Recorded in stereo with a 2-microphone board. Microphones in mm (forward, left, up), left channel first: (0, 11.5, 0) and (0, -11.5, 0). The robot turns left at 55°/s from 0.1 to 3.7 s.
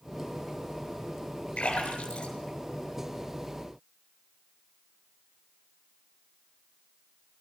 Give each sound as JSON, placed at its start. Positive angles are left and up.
{"t": 1.6, "sound": "a splash", "side_deg": 70, "distance_m": 8.0}